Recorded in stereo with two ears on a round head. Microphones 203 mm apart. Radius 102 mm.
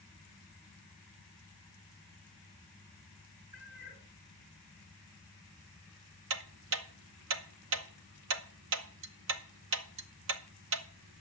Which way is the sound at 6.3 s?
60° right (ahead or behind).